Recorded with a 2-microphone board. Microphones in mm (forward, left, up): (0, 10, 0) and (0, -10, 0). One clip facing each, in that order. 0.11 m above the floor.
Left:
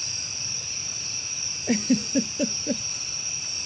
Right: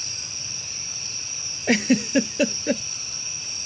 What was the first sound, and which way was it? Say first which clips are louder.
A giggle: right 4 dB; 40° right (ahead or behind).